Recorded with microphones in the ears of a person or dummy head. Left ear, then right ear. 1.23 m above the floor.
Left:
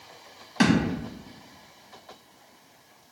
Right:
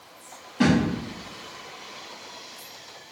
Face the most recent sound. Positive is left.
turn(degrees=50)  # may be behind; listen again after turning